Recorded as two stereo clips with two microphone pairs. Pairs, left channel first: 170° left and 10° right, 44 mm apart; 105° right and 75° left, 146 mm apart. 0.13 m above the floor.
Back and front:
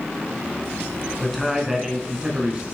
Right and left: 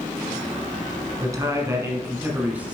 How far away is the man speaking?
About 1.5 m.